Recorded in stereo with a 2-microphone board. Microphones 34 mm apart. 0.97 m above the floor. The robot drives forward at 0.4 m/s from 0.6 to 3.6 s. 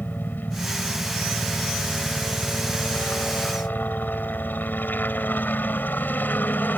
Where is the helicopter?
70° left (ahead or behind).